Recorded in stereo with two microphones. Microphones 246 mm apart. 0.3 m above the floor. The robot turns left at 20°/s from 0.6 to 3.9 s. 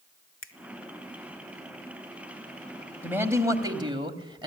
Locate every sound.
0.4 s a finger snap: 55° left (ahead or behind), 1.5 m
3.0 s a man speaking: 10° right (ahead or behind), 1.9 m; by 4.5 s 20° right (ahead or behind), 1.9 m